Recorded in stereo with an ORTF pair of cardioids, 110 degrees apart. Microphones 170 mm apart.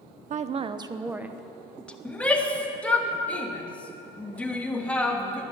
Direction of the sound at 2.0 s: 5° left.